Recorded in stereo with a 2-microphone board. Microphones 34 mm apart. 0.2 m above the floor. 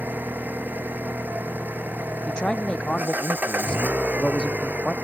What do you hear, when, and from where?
0.0 s an engine running: 70° right (ahead or behind)
2.3 s a man speaking: 30° left (ahead or behind)